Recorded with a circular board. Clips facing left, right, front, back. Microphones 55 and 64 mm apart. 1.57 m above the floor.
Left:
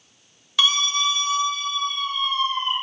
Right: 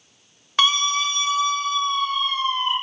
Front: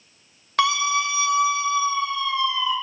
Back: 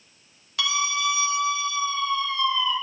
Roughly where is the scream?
Ahead right.